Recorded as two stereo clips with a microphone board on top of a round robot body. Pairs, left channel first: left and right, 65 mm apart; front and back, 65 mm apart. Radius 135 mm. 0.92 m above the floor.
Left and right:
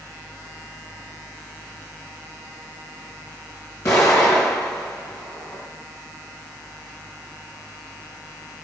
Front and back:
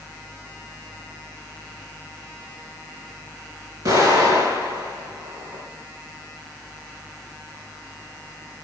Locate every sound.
3.9 s an explosion: 145° left, 6 m